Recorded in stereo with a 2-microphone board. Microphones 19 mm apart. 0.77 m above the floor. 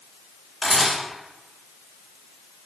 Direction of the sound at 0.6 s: 10° left (ahead or behind).